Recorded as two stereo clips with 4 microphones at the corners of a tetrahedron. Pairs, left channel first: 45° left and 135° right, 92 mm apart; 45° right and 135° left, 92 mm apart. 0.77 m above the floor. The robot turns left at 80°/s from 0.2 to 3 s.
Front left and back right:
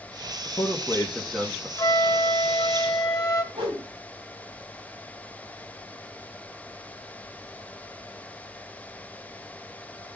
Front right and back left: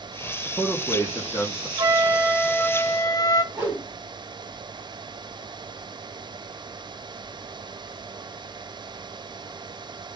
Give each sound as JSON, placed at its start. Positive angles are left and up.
{"t": 0.5, "sound": "a man speaking", "azimuth_deg": 25, "distance_m": 1.4}
{"t": 1.8, "sound": "a flute", "azimuth_deg": 95, "distance_m": 0.8}
{"t": 3.5, "sound": "a whoosh", "azimuth_deg": -160, "distance_m": 5.5}